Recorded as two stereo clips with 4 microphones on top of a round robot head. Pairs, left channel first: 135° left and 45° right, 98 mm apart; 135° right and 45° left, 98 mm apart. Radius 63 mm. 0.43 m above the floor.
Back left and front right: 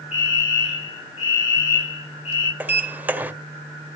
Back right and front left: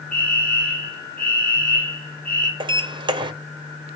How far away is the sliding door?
About 1.5 m.